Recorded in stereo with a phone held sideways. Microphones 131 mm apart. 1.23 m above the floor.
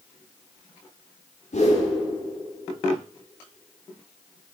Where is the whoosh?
60° left (ahead or behind), 3.5 m.